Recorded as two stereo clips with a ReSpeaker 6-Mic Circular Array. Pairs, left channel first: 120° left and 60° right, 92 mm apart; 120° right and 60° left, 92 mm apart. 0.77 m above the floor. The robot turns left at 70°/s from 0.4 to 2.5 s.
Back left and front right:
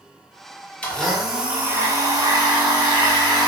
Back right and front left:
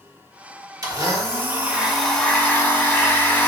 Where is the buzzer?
I don't hear a buzzer.